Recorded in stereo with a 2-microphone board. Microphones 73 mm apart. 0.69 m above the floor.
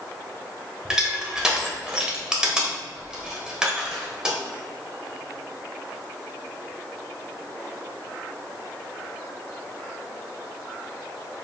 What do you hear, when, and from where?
0.8 s crushing: 10° right (ahead or behind), 0.9 m